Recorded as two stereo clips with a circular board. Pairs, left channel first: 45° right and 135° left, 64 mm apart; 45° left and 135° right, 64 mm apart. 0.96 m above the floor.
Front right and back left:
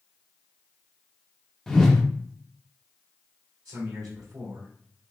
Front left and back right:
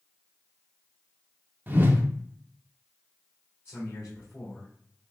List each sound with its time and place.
1.7 s a whoosh: 125° right, 0.5 m
3.6 s a man speaking: 105° left, 1.8 m